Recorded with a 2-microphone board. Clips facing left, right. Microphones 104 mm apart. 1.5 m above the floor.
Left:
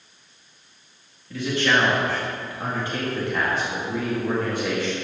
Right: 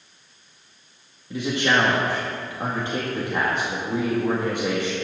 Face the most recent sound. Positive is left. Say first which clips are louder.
# even
turn(degrees=-25)  # may be behind; listen again after turning